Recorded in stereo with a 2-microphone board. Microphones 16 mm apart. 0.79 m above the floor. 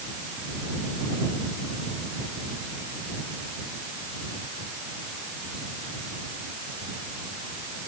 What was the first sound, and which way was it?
Only background noise.